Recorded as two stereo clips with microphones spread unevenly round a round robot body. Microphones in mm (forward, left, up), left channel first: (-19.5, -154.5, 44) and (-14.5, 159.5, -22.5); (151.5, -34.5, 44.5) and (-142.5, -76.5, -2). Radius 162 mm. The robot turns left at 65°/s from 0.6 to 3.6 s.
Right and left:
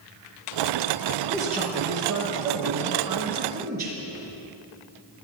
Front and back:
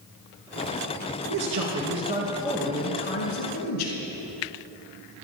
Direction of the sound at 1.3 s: 175° left.